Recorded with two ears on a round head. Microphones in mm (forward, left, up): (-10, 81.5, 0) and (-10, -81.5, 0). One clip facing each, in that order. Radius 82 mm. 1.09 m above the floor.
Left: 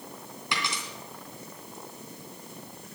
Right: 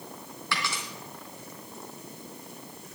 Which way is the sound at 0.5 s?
15° left (ahead or behind).